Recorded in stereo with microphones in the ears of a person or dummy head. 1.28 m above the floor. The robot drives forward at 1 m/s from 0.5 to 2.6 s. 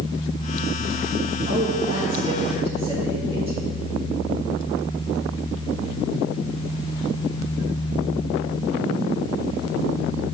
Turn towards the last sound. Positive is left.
turn(degrees=-30)  # may be behind; listen again after turning